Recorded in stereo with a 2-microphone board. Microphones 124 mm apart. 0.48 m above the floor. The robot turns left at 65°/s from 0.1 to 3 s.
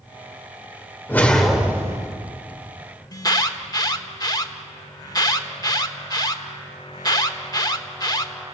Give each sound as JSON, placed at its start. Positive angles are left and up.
{"t": 1.1, "sound": "a whoosh", "azimuth_deg": 20, "distance_m": 2.0}
{"t": 3.1, "sound": "an alarm", "side_deg": 30, "distance_m": 1.2}